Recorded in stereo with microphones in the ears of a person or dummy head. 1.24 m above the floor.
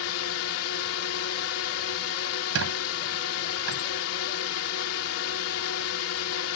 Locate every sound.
0.0 s a drone: 70° left (ahead or behind)
2.5 s a squeak: 80° right